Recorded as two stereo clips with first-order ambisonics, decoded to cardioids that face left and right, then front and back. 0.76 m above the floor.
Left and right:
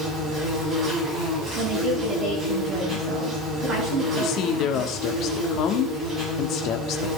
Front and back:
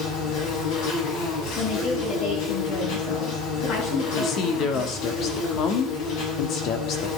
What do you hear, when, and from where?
0.0 s an insect: 15° right, 7 m
1.5 s a woman speaking: 30° right, 8.5 m
4.1 s a woman speaking: 50° left, 1.2 m